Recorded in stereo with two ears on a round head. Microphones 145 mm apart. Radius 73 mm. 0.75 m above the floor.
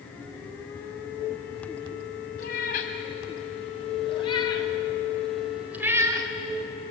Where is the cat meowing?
55° left (ahead or behind), 3 m; by 6.3 s 25° right (ahead or behind), 1.8 m.